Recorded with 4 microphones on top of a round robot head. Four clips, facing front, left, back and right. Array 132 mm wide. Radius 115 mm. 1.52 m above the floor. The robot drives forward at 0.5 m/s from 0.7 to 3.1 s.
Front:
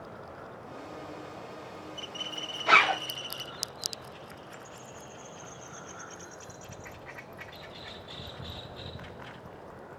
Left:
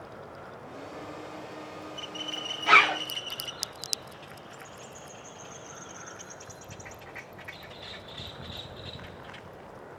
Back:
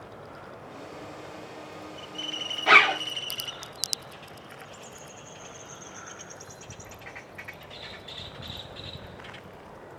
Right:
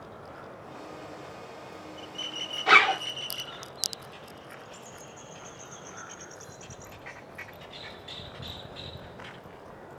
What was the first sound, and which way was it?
A zipper, 160° right.